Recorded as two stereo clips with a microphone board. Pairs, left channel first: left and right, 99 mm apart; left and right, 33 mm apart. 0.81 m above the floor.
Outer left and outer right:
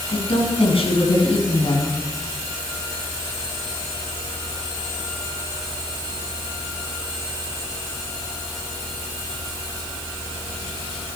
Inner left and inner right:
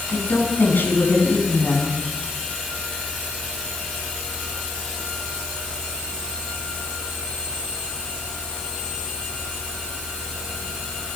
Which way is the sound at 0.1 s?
70° left (ahead or behind).